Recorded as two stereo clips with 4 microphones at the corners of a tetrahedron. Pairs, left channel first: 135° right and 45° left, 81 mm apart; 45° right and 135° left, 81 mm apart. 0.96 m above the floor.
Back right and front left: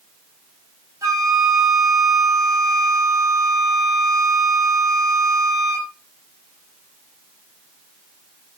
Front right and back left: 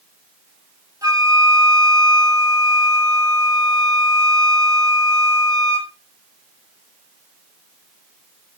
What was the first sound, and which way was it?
A flute, 95° left.